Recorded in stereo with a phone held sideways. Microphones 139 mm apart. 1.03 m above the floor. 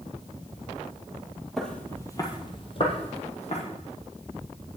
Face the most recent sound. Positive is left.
turn(degrees=55)  # may be behind; listen again after turning